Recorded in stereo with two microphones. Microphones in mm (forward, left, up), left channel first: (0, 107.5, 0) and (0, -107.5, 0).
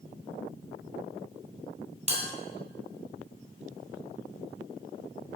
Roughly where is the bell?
Right.